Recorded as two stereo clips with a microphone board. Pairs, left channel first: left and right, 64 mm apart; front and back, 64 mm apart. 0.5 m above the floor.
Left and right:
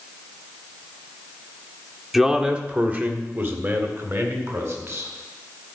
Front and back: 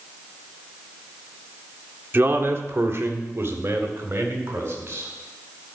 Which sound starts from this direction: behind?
A man speaking, at 2.1 s.